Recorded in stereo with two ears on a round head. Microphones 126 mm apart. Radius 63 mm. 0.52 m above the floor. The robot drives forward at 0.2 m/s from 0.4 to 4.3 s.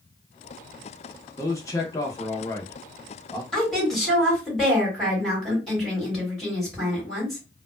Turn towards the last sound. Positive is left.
turn(degrees=0)  # may be behind; listen again after turning